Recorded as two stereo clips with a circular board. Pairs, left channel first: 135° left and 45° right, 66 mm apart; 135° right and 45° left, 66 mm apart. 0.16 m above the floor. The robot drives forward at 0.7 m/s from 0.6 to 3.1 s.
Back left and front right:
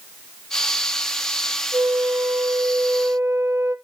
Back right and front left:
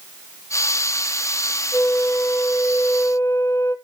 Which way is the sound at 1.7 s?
70° right.